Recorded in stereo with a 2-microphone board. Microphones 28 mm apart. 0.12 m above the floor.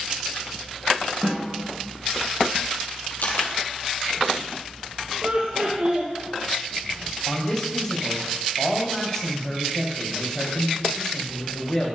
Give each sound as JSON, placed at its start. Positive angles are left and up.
{"t": 1.2, "sound": "a snare drum", "side_deg": -35, "distance_m": 5.5}
{"t": 3.2, "sound": "a camera shutter", "side_deg": 70, "distance_m": 2.5}
{"t": 5.2, "sound": "laughter", "side_deg": -55, "distance_m": 3.0}
{"t": 7.3, "sound": "a man speaking", "side_deg": 20, "distance_m": 4.5}